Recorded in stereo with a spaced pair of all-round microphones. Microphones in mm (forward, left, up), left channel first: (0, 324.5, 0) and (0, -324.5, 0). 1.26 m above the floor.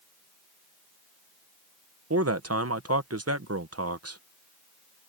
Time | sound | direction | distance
2.1 | a man speaking | 20° right (ahead or behind) | ?